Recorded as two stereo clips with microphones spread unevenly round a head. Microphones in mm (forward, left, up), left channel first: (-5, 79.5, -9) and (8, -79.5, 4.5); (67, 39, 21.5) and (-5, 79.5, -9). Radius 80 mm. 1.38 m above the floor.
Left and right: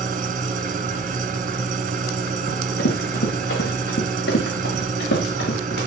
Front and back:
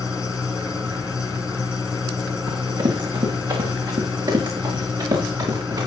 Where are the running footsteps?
125° left, 9 m; by 5.9 s 120° left, 11.5 m.